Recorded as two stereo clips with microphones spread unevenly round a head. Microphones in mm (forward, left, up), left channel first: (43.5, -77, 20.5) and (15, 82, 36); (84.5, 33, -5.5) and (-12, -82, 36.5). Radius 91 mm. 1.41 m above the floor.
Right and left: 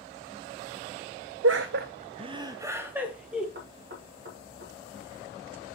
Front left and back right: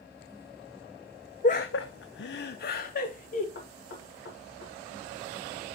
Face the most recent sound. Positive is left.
turn(degrees=75)